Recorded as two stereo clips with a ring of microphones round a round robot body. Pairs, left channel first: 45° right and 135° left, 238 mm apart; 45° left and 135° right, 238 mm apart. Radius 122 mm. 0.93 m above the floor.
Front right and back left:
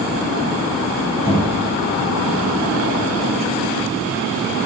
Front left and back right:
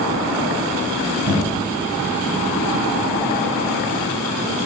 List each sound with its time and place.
1.2 s knocking: 25° left, 5 m